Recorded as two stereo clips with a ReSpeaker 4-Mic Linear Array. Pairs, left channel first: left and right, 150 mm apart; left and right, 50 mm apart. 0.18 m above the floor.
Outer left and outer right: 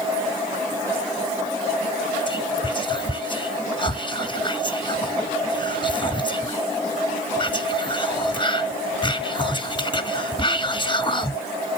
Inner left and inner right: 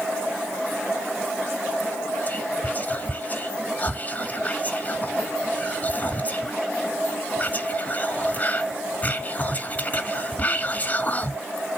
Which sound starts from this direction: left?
Whispering, at 2.3 s.